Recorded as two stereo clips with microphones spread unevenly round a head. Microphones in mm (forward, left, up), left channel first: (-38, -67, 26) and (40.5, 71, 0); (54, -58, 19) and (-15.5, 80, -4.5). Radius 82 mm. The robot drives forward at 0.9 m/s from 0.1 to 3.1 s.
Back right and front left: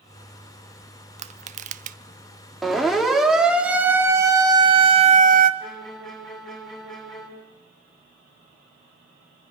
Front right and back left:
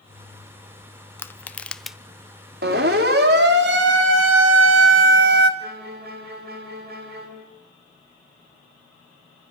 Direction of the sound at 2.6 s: 155° left.